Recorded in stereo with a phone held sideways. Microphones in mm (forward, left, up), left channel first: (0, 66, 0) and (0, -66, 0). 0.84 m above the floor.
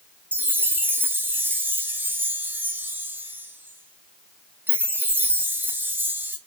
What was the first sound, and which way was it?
A chime, 15° right (ahead or behind).